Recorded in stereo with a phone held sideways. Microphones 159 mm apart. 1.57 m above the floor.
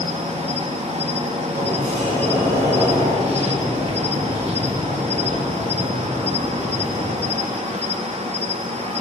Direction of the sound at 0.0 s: 40° right (ahead or behind).